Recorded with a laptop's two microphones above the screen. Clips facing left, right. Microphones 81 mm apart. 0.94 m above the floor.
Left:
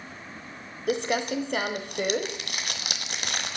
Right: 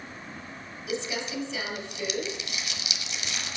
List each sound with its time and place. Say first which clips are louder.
0.9 s crumpling: left 6 dB; 55° left (ahead or behind), 1.4 m